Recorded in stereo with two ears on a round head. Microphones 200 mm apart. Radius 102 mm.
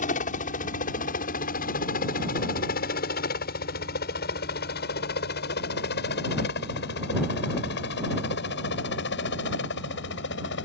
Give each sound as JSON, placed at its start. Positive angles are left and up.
{"t": 0.0, "sound": "a helicopter", "side_deg": 35}